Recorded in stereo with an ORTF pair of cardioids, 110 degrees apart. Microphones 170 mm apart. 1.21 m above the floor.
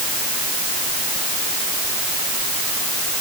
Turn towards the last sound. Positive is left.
No sound to turn to.